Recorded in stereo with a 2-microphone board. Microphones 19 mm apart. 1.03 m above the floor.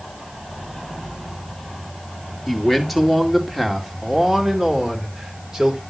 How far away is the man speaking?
About 2 m.